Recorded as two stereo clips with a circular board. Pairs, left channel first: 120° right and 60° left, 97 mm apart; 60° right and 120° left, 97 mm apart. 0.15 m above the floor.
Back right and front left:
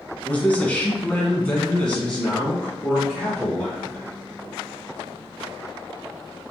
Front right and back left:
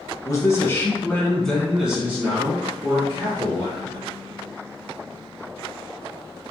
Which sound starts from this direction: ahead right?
A man speaking, at 0.2 s.